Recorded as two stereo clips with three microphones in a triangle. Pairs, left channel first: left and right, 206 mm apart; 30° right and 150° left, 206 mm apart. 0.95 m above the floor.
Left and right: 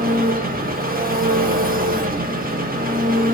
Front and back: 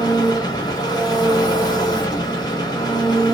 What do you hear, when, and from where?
0.0 s an engine running: 95° right, 0.7 m